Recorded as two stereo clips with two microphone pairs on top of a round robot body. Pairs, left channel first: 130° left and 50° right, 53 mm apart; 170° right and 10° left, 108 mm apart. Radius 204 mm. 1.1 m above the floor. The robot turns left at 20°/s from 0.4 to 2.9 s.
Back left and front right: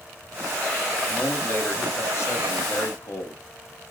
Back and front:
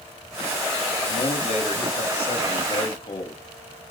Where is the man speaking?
175° right, 2 m; by 3.4 s 150° left, 2 m.